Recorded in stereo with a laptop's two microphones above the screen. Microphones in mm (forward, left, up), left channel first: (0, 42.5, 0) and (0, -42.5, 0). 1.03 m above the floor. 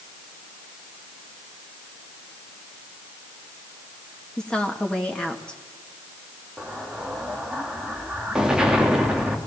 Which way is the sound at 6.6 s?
10° right (ahead or behind).